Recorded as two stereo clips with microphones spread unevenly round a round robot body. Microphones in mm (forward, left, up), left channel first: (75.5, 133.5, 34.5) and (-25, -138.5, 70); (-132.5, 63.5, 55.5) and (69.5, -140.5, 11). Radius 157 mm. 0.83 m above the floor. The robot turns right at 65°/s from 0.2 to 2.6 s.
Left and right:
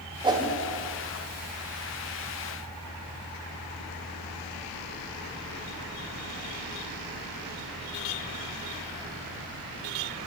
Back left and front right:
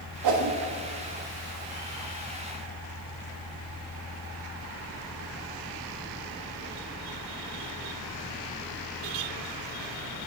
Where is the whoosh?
35° right, 0.7 m; by 0.6 s 15° right, 0.7 m.